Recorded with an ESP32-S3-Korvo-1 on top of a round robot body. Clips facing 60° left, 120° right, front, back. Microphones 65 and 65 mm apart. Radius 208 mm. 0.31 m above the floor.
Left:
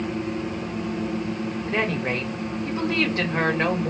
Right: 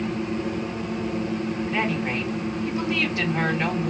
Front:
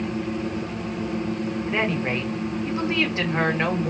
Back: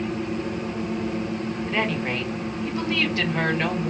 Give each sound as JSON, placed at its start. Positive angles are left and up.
{"t": 1.7, "sound": "a woman speaking", "azimuth_deg": 55, "distance_m": 1.9}